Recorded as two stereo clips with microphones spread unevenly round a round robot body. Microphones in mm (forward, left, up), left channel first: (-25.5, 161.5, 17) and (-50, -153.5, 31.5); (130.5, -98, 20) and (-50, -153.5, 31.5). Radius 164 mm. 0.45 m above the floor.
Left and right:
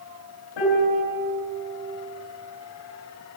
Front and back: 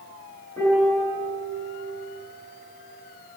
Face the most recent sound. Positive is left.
turn(degrees=100)